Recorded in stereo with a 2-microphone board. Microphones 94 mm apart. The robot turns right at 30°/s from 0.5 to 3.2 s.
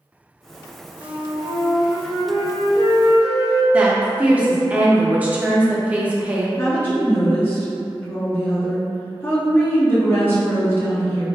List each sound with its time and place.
1.0 s a flute: 125° right, 1.1 m; by 3.6 s 60° right, 1.1 m
3.7 s a woman speaking: 15° right (ahead or behind), 0.6 m
6.6 s a woman speaking: 25° left (ahead or behind), 0.7 m